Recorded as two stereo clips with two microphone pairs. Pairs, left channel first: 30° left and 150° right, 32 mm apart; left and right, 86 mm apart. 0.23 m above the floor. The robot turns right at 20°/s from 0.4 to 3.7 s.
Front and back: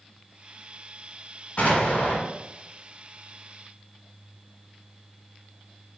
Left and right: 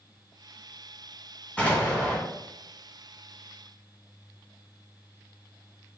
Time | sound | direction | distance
1.6 | an explosion | 20° left | 0.9 m